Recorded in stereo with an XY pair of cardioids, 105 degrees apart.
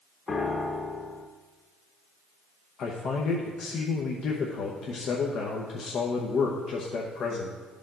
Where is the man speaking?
60° left, 0.9 m.